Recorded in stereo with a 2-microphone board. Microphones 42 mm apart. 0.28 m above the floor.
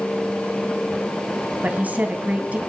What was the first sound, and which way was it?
A woman speaking, 35° right (ahead or behind).